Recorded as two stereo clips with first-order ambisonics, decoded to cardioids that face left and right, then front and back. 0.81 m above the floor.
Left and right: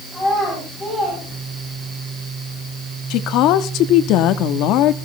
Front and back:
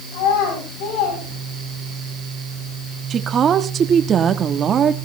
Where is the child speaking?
Straight ahead, 4.5 m.